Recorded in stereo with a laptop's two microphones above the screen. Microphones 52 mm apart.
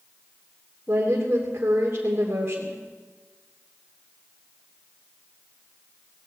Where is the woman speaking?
40° right (ahead or behind), 2.5 m.